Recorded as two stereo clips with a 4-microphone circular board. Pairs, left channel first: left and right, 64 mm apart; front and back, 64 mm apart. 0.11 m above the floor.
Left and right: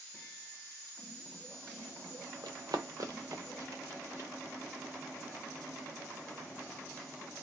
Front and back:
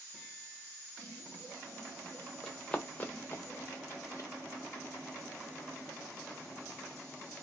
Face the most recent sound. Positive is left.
turn(degrees=-40)